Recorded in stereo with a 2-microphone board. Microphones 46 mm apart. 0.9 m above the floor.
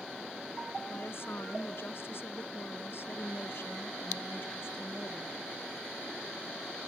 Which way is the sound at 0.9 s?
60° left (ahead or behind).